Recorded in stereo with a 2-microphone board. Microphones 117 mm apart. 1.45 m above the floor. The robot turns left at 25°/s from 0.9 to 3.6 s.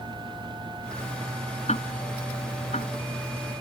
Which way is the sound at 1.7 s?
70° left (ahead or behind).